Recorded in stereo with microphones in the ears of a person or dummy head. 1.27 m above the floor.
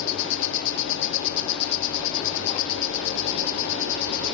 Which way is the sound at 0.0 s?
65° left (ahead or behind).